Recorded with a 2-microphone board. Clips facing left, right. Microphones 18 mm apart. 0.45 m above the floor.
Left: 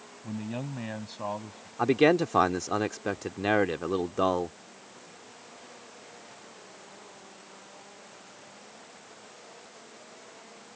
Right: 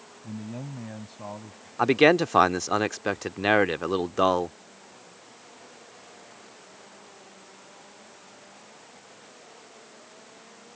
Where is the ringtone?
I don't hear a ringtone.